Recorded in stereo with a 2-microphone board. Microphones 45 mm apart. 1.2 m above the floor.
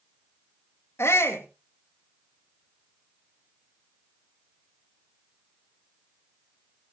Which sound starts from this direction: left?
A shout, at 1.0 s.